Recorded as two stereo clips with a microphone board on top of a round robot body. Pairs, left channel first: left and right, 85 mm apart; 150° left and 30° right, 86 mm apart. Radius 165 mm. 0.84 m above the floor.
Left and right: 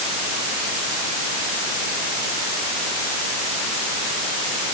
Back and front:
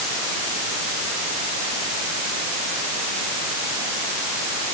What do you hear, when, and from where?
Only background noise.